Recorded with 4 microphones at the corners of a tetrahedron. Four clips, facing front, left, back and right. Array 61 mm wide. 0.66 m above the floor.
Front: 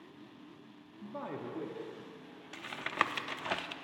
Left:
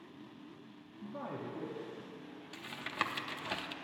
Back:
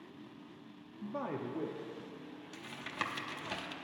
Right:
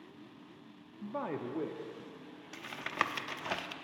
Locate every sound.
1.0 s a man speaking: 115° right, 0.8 m; by 2.4 s 80° right, 1.3 m
2.5 s tapping: 30° right, 0.7 m